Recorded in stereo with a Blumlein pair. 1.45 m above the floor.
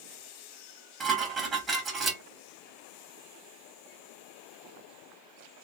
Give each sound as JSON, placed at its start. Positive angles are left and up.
{"t": 1.0, "sound": "dishes clattering", "azimuth_deg": -20, "distance_m": 1.2}